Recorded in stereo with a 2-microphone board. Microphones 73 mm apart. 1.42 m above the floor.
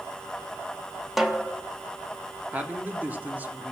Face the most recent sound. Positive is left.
turn(degrees=-20)  # may be behind; listen again after turning